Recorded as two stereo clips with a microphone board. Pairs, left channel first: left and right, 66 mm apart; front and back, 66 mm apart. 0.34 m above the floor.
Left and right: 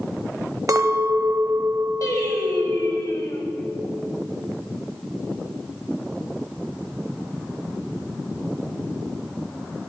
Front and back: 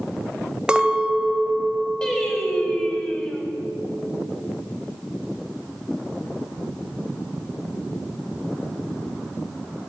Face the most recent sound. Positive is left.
turn(degrees=75)